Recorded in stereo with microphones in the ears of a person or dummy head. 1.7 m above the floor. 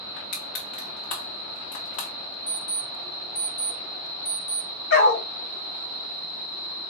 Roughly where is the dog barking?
Left.